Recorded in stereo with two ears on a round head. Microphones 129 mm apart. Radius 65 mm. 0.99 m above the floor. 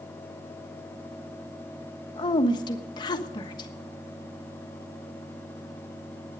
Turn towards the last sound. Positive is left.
turn(degrees=30)  # may be behind; listen again after turning